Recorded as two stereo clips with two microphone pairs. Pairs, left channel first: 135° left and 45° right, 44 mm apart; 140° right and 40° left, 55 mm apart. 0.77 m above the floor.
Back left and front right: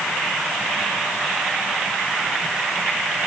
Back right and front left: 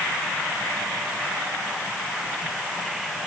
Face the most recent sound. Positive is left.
No sound to turn to.